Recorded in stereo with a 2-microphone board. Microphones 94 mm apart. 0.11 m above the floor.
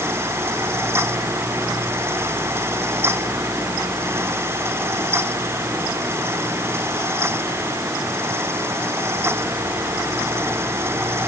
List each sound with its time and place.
Only background noise.